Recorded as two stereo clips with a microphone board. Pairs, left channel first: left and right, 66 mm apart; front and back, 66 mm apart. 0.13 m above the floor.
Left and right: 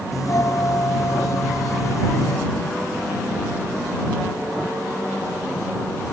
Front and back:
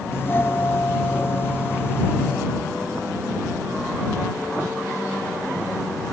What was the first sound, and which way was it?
A doorbell, 55° left.